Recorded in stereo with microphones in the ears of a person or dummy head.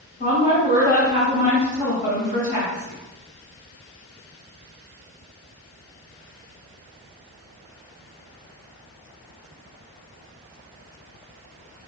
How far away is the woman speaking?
About 1.5 m.